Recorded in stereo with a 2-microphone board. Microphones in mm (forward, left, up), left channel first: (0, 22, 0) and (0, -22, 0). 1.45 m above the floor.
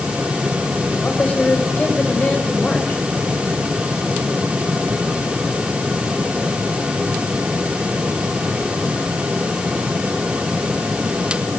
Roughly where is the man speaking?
Left.